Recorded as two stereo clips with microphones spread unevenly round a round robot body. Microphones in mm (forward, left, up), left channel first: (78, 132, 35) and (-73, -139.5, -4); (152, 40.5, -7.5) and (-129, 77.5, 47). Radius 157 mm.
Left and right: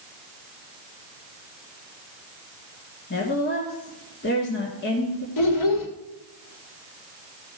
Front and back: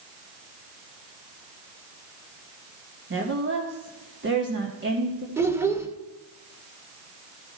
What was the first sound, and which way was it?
A woman speaking, 120° left.